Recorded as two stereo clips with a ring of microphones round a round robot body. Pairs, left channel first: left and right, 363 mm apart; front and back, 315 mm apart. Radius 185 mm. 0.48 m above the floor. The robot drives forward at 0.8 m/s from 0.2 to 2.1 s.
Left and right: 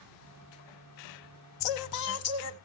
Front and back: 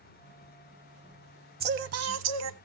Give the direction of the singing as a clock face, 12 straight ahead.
8 o'clock.